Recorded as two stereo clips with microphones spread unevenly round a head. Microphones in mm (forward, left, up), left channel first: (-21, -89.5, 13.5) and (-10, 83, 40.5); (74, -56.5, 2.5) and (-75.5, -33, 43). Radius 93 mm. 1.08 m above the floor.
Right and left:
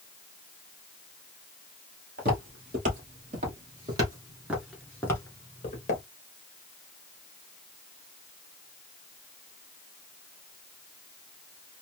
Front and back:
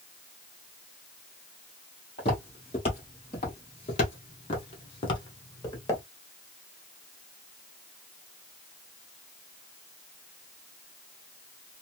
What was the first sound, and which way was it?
Footsteps, 60° left.